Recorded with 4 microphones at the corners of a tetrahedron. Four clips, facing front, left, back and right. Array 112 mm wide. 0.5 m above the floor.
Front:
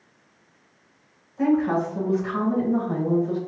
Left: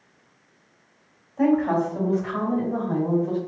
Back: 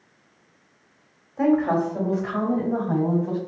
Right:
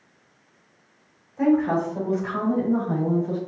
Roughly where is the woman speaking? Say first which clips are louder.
Even, back 1 dB; behind.